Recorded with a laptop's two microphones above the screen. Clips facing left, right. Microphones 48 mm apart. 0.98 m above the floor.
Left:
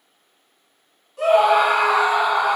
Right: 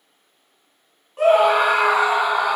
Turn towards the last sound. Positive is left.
turn(degrees=-5)  # may be behind; listen again after turning